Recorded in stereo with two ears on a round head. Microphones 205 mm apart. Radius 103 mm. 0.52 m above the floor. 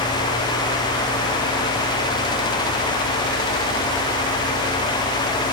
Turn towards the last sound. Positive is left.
No sound to turn to.